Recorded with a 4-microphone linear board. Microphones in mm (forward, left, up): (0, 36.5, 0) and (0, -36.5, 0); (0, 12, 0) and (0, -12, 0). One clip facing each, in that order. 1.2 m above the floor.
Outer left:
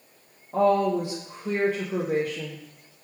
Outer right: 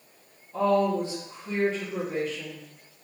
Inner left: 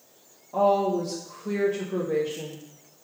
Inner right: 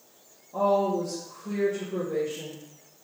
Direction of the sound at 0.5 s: 60° left (ahead or behind).